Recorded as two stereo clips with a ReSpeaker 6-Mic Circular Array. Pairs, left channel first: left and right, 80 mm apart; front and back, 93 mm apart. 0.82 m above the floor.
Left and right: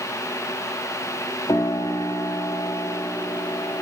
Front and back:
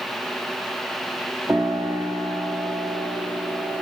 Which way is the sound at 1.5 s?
115° left.